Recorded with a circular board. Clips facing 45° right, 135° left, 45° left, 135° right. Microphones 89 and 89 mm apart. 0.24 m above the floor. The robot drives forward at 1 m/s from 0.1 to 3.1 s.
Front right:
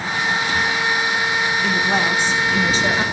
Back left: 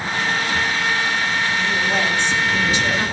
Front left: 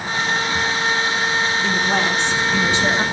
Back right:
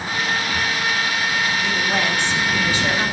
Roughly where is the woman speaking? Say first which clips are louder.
Front right 1 dB, front left 2 dB; ahead.